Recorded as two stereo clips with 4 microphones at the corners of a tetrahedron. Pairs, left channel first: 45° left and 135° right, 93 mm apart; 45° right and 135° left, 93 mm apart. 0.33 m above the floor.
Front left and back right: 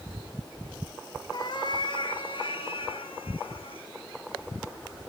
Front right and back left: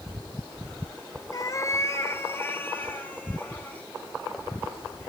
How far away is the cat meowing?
About 1.4 m.